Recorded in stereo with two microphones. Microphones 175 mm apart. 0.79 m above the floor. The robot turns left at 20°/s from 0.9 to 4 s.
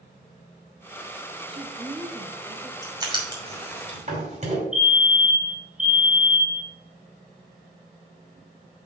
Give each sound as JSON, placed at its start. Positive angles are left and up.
{"t": 1.5, "sound": "a woman speaking", "side_deg": -35, "distance_m": 0.8}
{"t": 2.8, "sound": "writing", "side_deg": -20, "distance_m": 2.5}
{"t": 4.7, "sound": "a fire alarm", "side_deg": -5, "distance_m": 1.5}